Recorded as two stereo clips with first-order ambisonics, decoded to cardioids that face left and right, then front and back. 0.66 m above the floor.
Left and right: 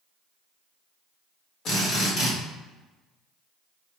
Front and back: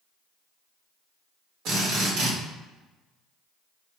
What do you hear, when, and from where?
1.6 s a drill: 135° left, 1.7 m